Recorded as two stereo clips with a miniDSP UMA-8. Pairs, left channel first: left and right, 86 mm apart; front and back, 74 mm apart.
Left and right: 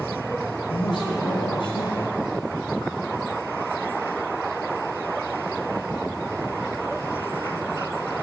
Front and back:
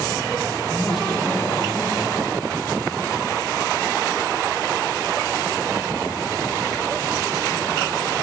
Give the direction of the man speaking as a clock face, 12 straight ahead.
9 o'clock.